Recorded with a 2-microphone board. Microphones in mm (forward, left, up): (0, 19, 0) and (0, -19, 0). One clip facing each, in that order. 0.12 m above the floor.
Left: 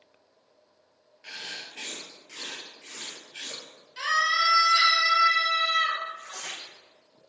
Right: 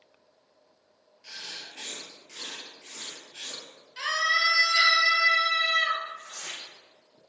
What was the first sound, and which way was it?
Writing, 35° left (ahead or behind).